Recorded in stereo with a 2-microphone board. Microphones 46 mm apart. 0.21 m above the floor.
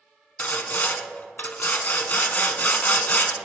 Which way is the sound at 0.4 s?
40° left (ahead or behind).